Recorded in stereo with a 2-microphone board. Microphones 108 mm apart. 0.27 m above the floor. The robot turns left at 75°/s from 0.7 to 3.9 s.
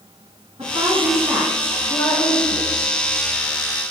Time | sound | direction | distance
0.6 | a woman speaking | 100° right | 2.5 m